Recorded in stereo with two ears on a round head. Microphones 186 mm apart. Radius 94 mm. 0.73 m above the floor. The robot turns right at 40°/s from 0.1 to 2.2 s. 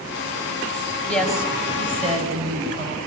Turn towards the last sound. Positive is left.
turn(degrees=-145)